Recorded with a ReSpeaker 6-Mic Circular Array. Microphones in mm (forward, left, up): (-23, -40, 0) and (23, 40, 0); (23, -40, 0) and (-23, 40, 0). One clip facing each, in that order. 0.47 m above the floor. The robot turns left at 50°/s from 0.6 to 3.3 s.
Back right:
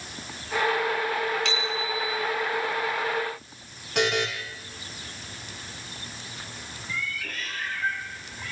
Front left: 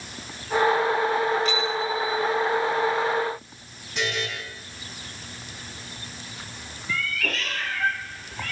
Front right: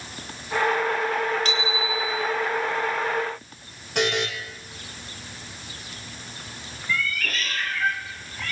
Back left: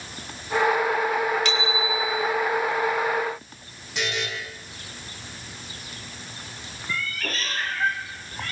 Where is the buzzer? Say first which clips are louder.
Back right 4 dB, front right 5 dB; 95° right, 10 m.